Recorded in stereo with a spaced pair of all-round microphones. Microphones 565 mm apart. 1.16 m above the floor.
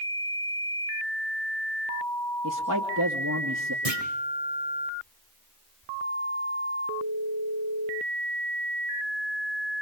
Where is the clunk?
80° right, 5 m.